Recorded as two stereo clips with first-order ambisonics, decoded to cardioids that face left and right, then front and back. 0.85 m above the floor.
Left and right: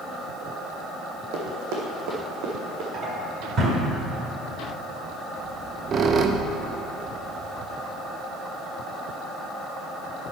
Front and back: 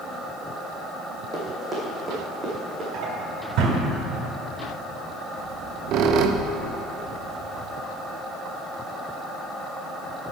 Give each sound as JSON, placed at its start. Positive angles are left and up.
{"t": 1.3, "sound": "running footsteps", "azimuth_deg": -90, "distance_m": 1.9}
{"t": 2.9, "sound": "a drawer", "azimuth_deg": -145, "distance_m": 1.9}
{"t": 5.4, "sound": "a squeak", "azimuth_deg": -150, "distance_m": 0.5}